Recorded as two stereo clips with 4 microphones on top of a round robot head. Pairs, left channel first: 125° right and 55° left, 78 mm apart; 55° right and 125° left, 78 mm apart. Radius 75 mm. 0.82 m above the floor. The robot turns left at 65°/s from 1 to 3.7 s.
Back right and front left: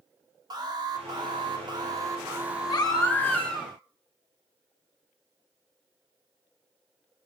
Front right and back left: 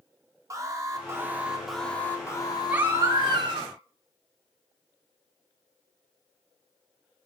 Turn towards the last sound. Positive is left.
turn(degrees=135)